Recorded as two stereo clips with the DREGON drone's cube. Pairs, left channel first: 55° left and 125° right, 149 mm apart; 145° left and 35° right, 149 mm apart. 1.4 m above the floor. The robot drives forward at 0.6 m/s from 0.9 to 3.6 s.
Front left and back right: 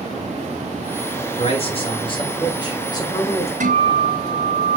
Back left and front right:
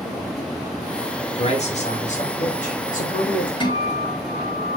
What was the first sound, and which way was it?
A man speaking, 100° left.